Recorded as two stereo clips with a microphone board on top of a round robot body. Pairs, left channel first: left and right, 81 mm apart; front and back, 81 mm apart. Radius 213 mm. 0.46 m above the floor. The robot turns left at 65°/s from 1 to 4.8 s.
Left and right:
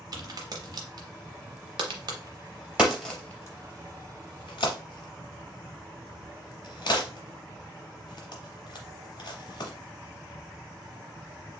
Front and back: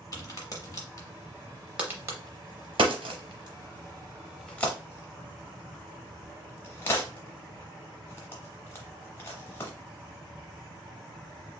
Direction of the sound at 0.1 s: 50° right.